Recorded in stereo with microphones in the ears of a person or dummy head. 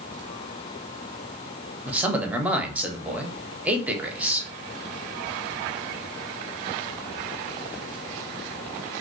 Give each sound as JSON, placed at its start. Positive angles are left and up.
{"t": 1.9, "sound": "a man speaking", "side_deg": -5, "distance_m": 0.5}